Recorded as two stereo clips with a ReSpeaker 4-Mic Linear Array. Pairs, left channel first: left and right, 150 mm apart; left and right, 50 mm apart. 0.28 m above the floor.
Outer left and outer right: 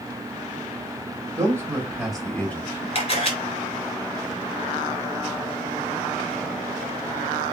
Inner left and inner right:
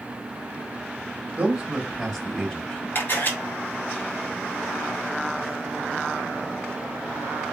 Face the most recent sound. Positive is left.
turn(degrees=40)  # may be behind; listen again after turning